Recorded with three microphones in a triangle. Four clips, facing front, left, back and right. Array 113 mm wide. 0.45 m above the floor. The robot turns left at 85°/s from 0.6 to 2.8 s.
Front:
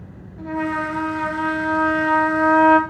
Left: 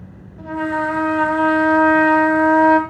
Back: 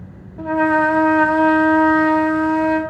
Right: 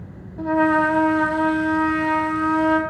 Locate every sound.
0.4 s a trumpet: 135° right, 1.9 m; by 2.8 s 35° left, 1.9 m